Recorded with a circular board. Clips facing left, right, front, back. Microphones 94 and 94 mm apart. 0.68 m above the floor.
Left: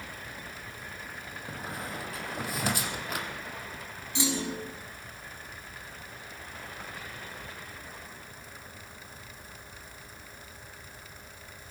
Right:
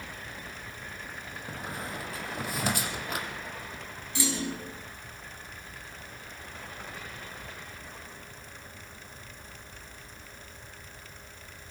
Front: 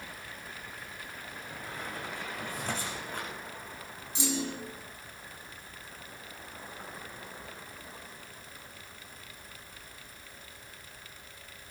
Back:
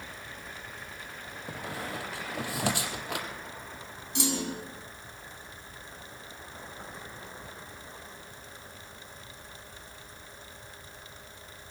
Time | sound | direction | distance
1.5 | a squeak | straight behind | 4 m
4.2 | a clunk | 160° left | 6 m